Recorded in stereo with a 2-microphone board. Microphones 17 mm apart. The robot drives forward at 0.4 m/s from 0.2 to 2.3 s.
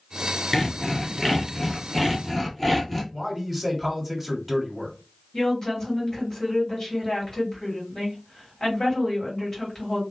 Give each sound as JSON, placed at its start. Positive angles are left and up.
{"t": 0.5, "sound": "sawing", "side_deg": 20, "distance_m": 0.5}
{"t": 3.1, "sound": "a man speaking", "side_deg": -10, "distance_m": 1.0}
{"t": 5.3, "sound": "a woman speaking", "side_deg": 30, "distance_m": 1.8}